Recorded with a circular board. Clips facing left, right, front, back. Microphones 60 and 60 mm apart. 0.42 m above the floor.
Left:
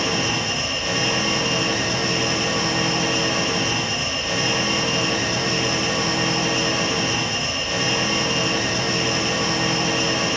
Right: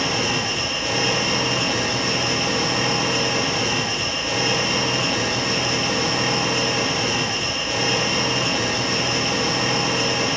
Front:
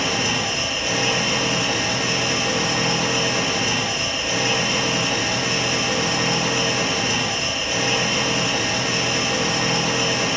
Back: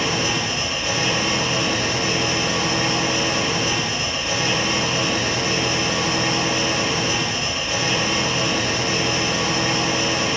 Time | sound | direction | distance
0.0 | an engine running | 75° right | 2.0 m